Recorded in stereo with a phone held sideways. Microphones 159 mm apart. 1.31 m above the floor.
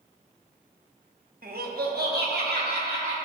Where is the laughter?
65° right (ahead or behind), 0.8 m; by 3.1 s 80° right, 2 m.